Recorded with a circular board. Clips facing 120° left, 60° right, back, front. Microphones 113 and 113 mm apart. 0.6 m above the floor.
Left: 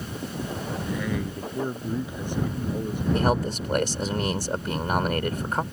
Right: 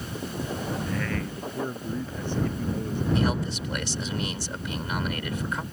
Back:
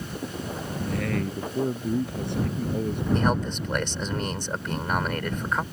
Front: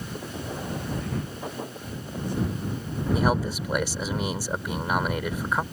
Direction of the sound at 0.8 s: 165° right.